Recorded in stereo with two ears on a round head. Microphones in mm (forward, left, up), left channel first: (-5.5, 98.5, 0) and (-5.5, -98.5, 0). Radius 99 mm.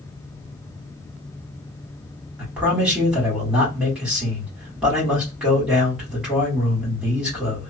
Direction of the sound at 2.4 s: 5° right (ahead or behind).